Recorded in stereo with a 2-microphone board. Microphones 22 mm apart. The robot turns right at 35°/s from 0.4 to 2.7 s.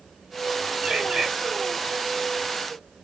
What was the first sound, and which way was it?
A bird, 50° right (ahead or behind).